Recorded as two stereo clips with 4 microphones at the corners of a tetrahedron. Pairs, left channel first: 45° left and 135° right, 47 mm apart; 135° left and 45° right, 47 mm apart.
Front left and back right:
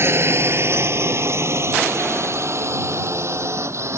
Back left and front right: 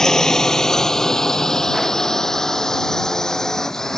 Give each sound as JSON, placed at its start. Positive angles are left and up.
{"t": 0.0, "sound": "a drone", "azimuth_deg": -145}